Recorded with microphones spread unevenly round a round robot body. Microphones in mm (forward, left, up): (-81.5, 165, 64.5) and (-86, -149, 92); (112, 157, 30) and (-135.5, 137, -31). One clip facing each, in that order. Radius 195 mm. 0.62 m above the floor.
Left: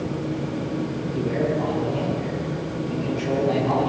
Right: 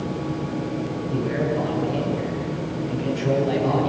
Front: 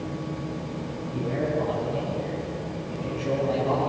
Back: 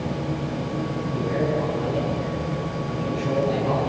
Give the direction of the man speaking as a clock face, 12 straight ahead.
3 o'clock.